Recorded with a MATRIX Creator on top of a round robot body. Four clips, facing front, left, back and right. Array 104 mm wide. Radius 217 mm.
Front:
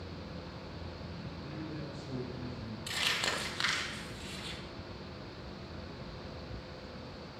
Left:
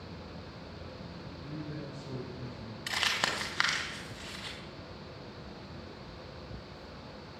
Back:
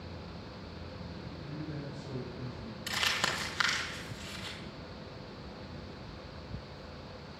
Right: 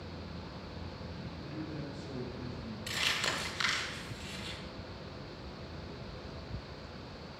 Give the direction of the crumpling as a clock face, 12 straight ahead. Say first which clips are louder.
Left 4 dB, back 3 dB; 9 o'clock.